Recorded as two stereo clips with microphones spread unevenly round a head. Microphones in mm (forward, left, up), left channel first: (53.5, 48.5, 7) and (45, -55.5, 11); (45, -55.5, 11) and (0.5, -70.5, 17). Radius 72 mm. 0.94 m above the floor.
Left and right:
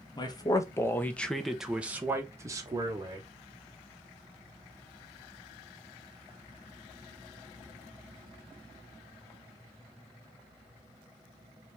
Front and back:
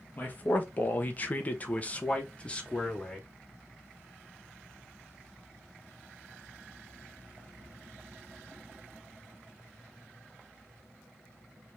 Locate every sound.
0.2 s a man speaking: 55° left, 1.0 m; by 3.3 s 50° right, 1.5 m